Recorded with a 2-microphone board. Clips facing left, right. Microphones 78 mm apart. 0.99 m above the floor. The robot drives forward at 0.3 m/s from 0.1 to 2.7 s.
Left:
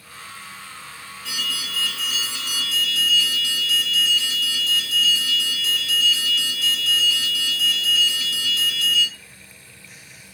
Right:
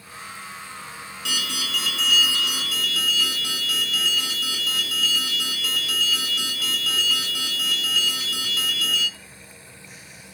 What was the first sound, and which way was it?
An alarm, 85° right.